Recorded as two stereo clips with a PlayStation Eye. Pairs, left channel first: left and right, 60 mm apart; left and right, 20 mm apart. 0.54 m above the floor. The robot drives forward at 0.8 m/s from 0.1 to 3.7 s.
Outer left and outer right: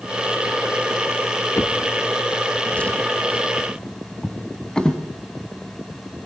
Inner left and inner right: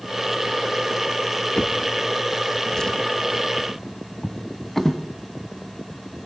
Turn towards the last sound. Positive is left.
turn(degrees=15)  # may be behind; listen again after turning